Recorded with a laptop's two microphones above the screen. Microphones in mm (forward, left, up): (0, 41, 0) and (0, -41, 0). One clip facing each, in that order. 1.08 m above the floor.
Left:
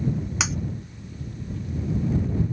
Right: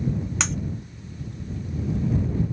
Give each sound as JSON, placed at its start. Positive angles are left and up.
{"t": 0.4, "sound": "breaking glass", "side_deg": 5}